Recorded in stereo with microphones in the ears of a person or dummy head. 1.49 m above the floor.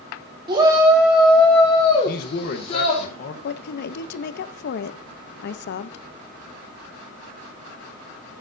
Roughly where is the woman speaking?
Left.